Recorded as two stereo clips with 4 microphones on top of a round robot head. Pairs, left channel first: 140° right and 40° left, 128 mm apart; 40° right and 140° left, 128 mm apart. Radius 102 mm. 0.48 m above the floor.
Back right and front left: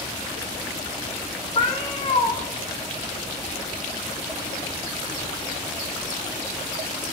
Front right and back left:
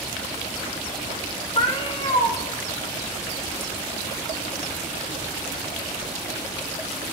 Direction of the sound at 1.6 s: 90° right.